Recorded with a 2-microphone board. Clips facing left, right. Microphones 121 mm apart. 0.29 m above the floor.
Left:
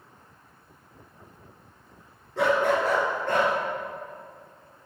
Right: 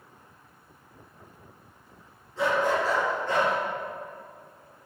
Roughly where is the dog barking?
Left.